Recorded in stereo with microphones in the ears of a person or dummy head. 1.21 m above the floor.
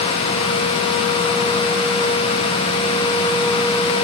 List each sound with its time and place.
Only background noise.